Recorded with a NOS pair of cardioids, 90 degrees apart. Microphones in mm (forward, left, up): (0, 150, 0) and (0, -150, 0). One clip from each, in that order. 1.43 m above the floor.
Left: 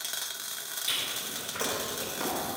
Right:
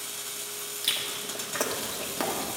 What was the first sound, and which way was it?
Chewing, 65° right.